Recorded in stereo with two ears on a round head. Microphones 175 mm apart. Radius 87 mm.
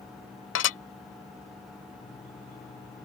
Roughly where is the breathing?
I don't hear breathing.